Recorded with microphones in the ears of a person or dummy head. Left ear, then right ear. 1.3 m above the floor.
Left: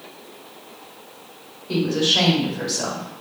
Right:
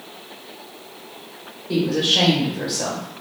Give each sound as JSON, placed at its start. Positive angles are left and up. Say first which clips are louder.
{"t": 1.7, "sound": "a woman speaking", "louder": "even", "side_deg": 30, "distance_m": 2.0}